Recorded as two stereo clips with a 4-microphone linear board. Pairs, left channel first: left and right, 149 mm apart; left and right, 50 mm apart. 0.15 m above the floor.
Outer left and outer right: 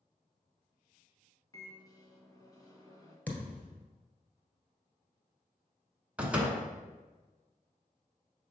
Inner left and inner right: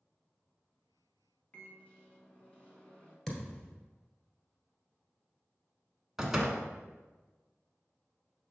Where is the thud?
10° left (ahead or behind), 1.5 m.